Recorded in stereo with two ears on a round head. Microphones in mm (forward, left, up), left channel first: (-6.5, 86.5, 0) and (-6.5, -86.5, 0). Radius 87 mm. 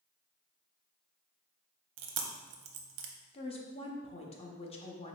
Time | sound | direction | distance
2.0 | chewing | 65° right (ahead or behind) | 0.6 m
3.3 | a woman speaking | 30° left (ahead or behind) | 0.7 m